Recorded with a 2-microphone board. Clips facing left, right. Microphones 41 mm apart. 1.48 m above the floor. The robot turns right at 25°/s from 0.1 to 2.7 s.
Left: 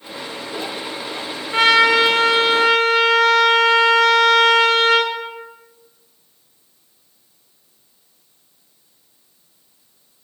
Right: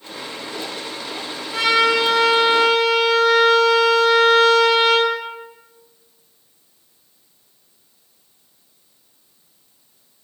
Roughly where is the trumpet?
Left.